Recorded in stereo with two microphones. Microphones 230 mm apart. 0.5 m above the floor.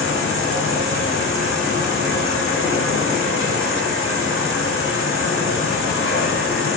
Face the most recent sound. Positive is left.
turn(degrees=65)  # may be behind; listen again after turning